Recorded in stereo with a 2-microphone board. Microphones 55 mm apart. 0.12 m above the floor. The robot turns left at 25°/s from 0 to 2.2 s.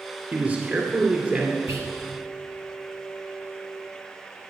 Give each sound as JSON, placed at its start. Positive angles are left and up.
{"t": 0.3, "sound": "a man speaking", "azimuth_deg": -75, "distance_m": 1.9}
{"t": 1.7, "sound": "whispering", "side_deg": -55, "distance_m": 2.5}